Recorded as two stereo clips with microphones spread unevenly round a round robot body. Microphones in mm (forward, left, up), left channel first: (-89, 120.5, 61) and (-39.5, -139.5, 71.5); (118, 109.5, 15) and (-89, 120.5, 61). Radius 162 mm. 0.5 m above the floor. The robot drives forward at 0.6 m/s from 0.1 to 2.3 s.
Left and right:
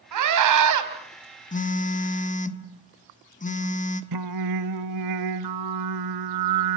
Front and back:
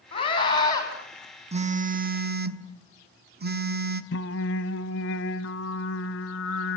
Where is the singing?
55° right, 0.9 m.